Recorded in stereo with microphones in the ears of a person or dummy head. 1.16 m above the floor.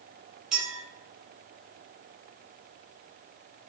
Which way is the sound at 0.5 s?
Centre (ahead or behind).